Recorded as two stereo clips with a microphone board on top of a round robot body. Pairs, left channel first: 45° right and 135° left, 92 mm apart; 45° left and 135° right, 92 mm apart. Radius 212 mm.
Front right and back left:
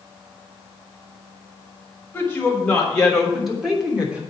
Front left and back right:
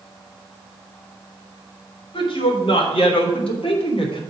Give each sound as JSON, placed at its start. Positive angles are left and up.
{"t": 2.1, "sound": "a woman speaking", "azimuth_deg": 25, "distance_m": 3.0}